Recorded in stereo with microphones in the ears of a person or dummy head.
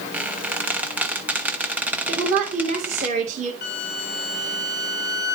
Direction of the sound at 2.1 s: 40° right (ahead or behind).